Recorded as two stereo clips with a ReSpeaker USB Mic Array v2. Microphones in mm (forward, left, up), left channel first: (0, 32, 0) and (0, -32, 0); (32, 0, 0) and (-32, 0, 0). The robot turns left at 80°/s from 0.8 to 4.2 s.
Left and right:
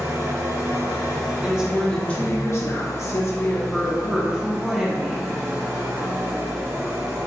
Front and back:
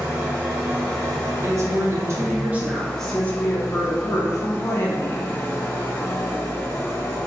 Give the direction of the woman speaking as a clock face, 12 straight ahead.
5 o'clock.